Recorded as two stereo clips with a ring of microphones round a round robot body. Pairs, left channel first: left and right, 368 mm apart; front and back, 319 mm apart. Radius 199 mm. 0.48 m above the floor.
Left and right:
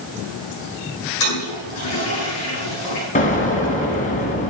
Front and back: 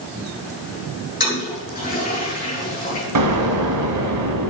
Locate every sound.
1.2 s a toilet flushing: 60° left, 7.5 m
3.1 s an explosion: 160° left, 2 m